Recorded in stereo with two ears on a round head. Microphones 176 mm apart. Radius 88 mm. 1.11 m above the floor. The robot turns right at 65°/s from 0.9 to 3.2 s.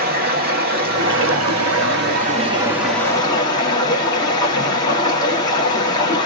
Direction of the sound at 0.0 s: 130° right.